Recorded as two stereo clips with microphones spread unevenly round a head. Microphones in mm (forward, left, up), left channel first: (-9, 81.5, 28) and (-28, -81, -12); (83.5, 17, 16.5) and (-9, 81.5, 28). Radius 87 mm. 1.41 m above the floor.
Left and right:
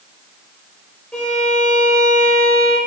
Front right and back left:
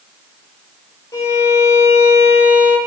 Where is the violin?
20° left, 1.4 m.